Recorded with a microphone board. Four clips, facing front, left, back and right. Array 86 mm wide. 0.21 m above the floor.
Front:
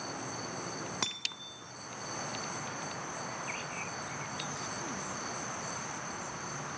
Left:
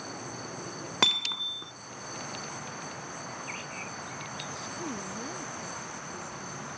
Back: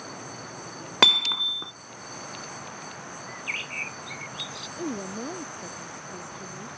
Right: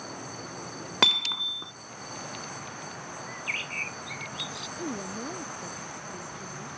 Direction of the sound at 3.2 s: 135° right.